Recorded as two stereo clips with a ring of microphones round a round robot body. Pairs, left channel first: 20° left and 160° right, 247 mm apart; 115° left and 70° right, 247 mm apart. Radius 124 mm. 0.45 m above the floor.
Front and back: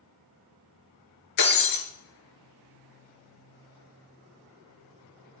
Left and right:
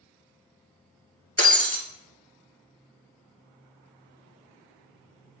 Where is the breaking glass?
40° left, 2.0 m.